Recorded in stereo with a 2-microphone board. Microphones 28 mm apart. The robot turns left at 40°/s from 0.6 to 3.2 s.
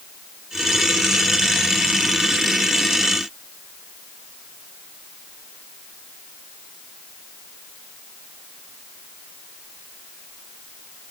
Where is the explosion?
I don't hear an explosion.